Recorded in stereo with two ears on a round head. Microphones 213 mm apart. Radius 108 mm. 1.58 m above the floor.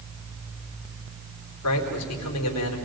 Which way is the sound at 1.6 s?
75° left (ahead or behind).